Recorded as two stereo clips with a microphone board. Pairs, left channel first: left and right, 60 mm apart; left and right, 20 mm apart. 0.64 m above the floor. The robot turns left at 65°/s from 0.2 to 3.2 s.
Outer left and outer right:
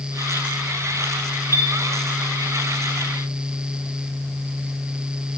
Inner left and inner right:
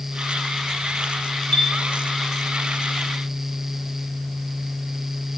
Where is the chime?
65° left (ahead or behind), 2.5 m; by 1.7 s 55° left (ahead or behind), 2.5 m.